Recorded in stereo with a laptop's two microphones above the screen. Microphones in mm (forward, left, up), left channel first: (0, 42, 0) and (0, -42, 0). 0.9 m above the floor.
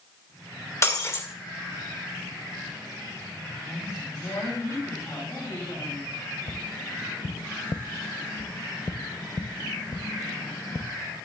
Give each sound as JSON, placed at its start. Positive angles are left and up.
{"t": 0.8, "sound": "breaking glass", "side_deg": 35, "distance_m": 2.0}
{"t": 3.6, "sound": "a woman speaking", "side_deg": 40, "distance_m": 6.5}
{"t": 6.5, "sound": "tapping", "side_deg": 55, "distance_m": 0.6}